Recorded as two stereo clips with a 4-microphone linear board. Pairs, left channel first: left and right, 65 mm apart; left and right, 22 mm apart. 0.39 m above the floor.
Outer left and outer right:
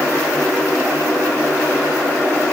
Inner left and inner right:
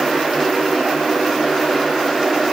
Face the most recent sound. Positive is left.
No sound to turn to.